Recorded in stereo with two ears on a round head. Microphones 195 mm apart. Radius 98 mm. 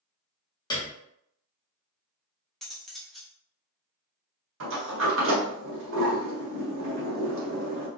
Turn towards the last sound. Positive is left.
turn(degrees=-60)  # may be behind; listen again after turning